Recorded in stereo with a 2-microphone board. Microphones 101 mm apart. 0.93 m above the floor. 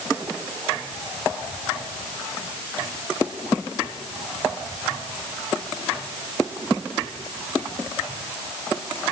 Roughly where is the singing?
I don't hear singing.